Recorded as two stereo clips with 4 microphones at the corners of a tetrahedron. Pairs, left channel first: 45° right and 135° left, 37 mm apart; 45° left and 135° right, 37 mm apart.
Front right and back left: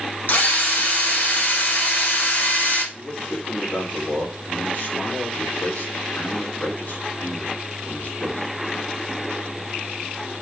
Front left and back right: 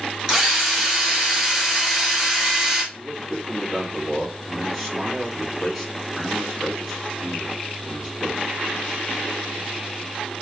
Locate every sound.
0.3 s a drill: 60° right, 2 m
2.9 s a man speaking: 60° right, 3.5 m